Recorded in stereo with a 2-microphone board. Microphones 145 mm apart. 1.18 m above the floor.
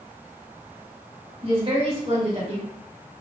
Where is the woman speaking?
40° right (ahead or behind), 2 m.